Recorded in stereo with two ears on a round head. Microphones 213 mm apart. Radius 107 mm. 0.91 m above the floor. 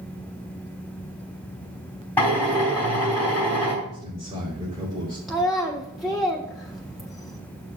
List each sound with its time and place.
2.2 s a drill: 5° left (ahead or behind), 4 m
3.8 s a man speaking: 15° right (ahead or behind), 3 m
5.3 s a child speaking: centre (ahead or behind), 0.7 m